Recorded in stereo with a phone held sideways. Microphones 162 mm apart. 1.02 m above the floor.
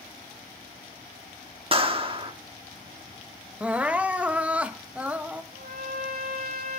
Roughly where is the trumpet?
Right.